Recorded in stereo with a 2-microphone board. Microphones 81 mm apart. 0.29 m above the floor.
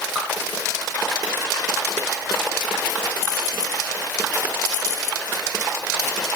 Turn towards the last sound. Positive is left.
turn(degrees=-10)  # may be behind; listen again after turning